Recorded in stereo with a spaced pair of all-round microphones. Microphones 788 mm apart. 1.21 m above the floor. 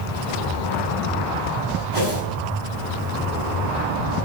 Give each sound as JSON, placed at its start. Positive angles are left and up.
{"t": 1.9, "sound": "a whoosh", "side_deg": -40, "distance_m": 5.0}